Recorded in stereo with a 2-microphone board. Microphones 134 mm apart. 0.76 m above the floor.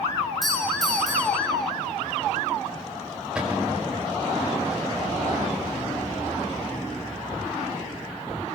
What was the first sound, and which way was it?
A doorbell, centre (ahead or behind).